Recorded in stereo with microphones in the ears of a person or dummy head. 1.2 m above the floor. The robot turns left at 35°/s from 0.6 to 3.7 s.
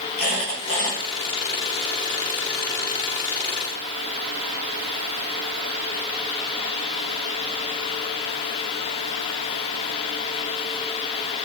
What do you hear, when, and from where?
0.2 s a squeak: 30° left (ahead or behind), 1.0 m